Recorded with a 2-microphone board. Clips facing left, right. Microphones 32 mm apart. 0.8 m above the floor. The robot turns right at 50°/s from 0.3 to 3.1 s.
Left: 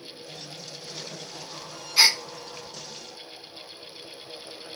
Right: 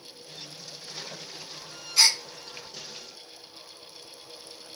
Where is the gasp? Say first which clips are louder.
Left 2 dB; 20° left (ahead or behind), 0.8 m; by 2.2 s 25° left (ahead or behind), 0.8 m.